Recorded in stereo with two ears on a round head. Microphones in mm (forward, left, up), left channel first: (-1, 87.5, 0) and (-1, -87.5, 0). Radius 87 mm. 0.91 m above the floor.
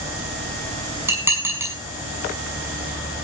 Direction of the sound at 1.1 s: 15° right (ahead or behind).